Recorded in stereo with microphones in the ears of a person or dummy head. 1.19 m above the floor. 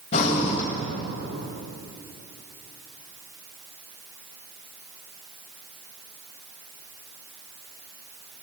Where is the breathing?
35° left (ahead or behind), 1.3 m.